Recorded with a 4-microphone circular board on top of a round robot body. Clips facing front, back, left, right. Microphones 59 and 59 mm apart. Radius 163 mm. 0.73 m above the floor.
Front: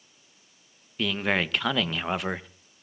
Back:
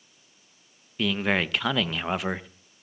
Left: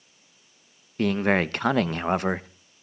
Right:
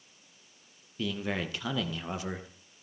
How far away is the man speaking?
About 0.8 m.